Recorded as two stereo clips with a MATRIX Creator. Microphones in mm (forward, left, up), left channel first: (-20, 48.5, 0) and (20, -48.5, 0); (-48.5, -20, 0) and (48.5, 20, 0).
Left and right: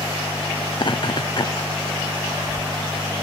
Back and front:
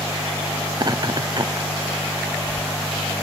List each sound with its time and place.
0.7 s laughter: 70° left